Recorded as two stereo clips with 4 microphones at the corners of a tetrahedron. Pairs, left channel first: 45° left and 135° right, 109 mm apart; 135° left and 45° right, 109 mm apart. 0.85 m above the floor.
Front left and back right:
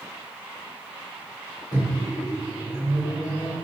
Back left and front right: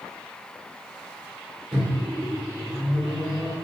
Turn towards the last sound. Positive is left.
turn(degrees=-5)